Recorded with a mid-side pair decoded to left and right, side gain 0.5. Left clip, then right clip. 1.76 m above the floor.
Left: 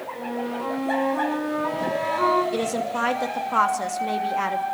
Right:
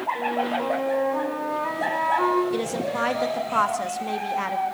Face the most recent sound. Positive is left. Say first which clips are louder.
# left 1 dB
turn(degrees=10)